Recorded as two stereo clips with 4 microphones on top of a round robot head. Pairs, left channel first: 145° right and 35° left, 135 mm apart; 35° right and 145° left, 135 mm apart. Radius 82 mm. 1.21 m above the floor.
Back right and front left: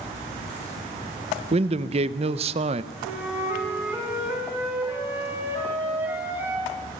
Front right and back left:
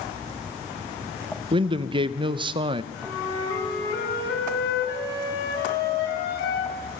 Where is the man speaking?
85° left, 0.7 m.